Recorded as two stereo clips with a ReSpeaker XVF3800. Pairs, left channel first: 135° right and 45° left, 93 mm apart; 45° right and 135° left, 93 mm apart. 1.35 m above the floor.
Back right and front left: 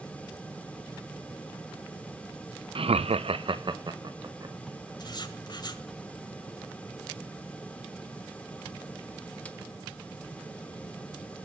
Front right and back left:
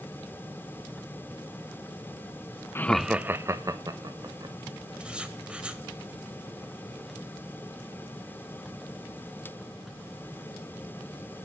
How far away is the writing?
About 1.5 m.